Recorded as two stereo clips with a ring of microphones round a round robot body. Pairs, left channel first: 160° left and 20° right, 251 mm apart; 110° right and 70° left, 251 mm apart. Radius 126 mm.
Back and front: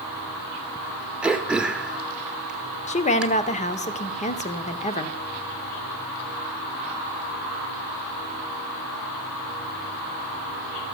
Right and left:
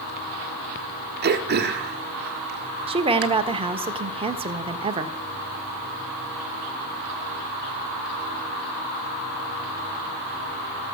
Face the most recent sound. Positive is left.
turn(degrees=120)